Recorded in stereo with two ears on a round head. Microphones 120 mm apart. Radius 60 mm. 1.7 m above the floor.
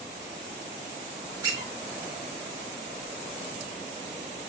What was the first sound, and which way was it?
A squeak, 30° right (ahead or behind).